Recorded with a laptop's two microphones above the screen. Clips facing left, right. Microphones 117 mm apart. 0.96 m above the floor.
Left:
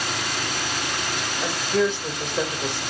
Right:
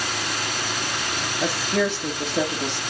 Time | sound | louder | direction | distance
1.4 | a woman speaking | left 1 dB | 70° right (ahead or behind) | 1.8 m